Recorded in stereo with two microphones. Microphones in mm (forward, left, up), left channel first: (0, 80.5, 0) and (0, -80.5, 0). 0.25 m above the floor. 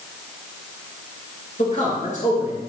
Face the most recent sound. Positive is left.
turn(degrees=55)  # may be behind; listen again after turning